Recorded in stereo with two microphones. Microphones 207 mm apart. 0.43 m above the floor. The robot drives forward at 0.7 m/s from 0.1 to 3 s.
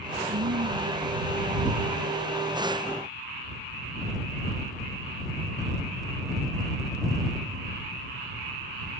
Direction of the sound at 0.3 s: 70° right (ahead or behind).